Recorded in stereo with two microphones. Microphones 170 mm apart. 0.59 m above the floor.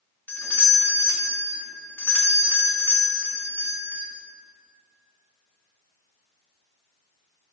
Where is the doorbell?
10° left (ahead or behind), 1.7 m.